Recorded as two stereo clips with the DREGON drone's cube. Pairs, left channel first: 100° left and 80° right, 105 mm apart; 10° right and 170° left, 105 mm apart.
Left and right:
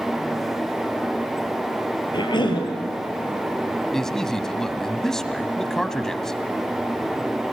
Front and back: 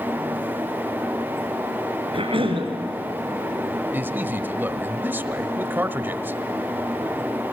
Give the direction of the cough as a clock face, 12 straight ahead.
7 o'clock.